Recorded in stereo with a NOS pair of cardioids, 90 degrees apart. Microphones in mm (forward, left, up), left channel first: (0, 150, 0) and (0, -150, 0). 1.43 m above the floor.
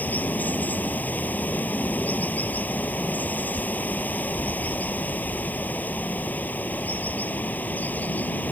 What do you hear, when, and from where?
0.0 s running water: 5° left